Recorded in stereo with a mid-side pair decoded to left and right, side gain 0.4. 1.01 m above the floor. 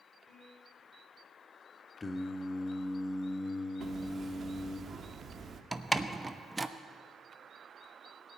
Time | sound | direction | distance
0.3 | a piano | 25° left | 5 m
2.0 | singing | 30° left | 1.2 m
3.8 | hammering | 50° right | 1.2 m
5.7 | a door slam | 20° right | 0.9 m